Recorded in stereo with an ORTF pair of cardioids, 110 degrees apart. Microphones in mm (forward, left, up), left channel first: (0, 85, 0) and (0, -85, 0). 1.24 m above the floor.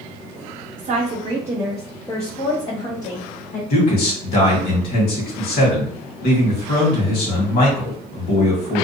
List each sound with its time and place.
0.8 s a woman speaking: 45° right, 0.8 m; by 3.6 s 55° left, 1.3 m
3.7 s a man speaking: 65° left, 1.6 m